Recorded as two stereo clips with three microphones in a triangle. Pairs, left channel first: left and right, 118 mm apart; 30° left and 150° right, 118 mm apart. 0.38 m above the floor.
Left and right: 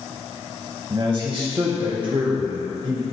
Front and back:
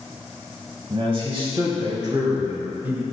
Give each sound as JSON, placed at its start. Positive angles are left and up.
{"t": 0.9, "sound": "a man speaking", "azimuth_deg": -125, "distance_m": 2.5}